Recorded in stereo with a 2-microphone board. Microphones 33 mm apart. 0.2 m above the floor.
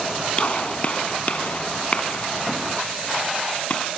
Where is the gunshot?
40° left (ahead or behind), 1.4 m.